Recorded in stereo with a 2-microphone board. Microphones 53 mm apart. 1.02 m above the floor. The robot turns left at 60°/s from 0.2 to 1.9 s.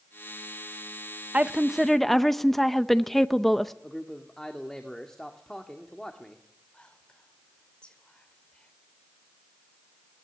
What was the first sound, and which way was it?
A woman speaking, 150° right.